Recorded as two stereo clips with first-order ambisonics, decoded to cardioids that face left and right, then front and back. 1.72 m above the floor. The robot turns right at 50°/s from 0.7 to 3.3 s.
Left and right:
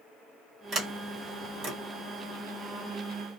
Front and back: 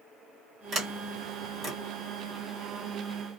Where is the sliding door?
130° right, 1.8 m; by 1.7 s 80° right, 1.8 m.